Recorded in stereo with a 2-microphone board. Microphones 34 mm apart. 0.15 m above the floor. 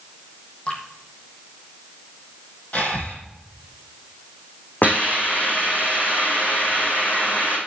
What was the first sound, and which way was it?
Dripping, 35° left (ahead or behind).